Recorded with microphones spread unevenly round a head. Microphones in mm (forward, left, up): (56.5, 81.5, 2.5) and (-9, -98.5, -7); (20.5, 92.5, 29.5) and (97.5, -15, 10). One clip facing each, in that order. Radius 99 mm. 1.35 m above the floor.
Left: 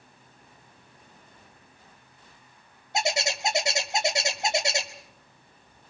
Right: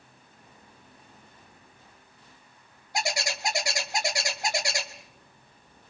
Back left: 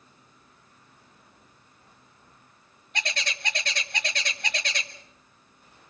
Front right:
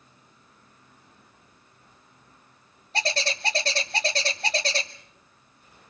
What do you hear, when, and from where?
2.9 s a bird: 5° left, 1.6 m